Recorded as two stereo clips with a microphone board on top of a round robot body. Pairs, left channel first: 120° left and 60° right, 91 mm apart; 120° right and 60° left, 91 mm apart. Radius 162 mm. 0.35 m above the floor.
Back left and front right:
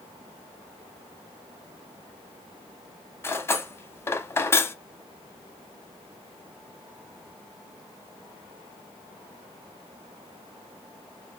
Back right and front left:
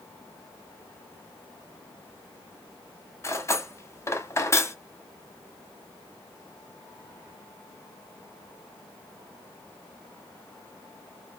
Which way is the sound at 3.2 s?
Straight behind.